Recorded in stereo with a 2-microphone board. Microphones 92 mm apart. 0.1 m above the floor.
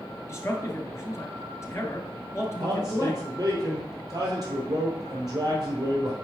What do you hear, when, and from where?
0.3 s a man speaking: 30° left (ahead or behind), 1.3 m
2.6 s a man speaking: 45° right (ahead or behind), 3 m